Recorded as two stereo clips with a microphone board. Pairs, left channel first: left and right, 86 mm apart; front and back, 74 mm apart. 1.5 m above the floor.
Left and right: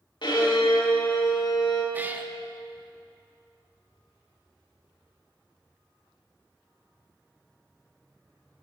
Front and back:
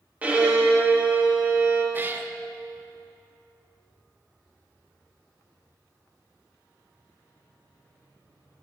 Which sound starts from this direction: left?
A violin, at 0.2 s.